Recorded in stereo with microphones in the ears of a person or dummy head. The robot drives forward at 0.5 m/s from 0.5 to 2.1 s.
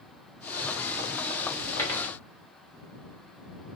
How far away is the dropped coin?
About 1.0 m.